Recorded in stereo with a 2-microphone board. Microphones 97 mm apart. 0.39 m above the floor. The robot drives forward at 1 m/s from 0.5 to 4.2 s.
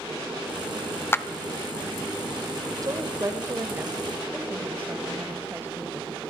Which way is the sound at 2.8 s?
35° right (ahead or behind).